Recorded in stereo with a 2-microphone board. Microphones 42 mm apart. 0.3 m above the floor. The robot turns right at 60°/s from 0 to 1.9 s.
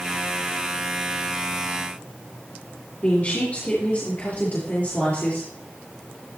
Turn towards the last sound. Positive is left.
turn(degrees=40)  # may be behind; listen again after turning